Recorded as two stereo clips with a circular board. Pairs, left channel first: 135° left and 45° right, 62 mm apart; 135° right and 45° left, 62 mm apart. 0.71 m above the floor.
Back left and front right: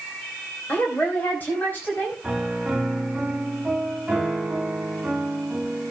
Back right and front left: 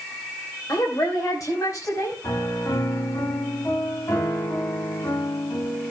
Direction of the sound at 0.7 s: 160° right.